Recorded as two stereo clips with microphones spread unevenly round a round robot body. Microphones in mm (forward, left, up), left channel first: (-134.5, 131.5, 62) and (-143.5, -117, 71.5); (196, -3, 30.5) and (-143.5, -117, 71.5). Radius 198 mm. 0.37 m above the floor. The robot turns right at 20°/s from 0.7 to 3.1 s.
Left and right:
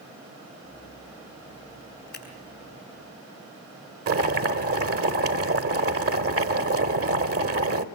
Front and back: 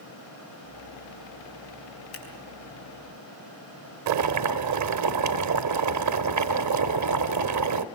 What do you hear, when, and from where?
2.1 s scissors: 25° left, 5.5 m; by 2.2 s 30° left, 5.5 m
4.1 s boiling: 120° right, 1.0 m